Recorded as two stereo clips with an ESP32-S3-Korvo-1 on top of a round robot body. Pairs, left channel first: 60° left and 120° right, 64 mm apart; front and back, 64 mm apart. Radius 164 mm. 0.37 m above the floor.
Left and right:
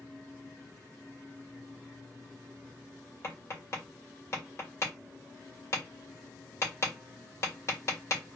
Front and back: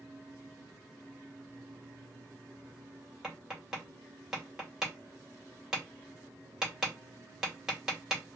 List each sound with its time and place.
3.2 s tapping: 100° left, 2 m